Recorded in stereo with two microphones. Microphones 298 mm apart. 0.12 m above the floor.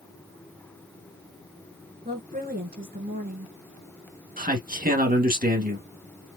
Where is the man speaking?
30° right (ahead or behind), 1.2 m.